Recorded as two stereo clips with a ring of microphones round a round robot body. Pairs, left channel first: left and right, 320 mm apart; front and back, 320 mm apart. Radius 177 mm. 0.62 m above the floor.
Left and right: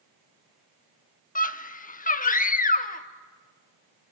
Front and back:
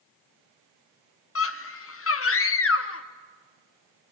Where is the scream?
30° left, 1.1 m.